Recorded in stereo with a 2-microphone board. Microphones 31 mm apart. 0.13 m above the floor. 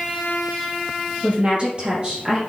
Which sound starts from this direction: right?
A woman speaking, at 1.2 s.